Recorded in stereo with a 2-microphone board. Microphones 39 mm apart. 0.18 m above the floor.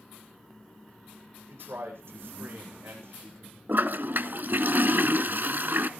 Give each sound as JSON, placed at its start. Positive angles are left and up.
{"t": 1.5, "sound": "a man speaking", "side_deg": -70, "distance_m": 9.5}
{"t": 3.7, "sound": "a toilet flushing", "side_deg": -55, "distance_m": 0.9}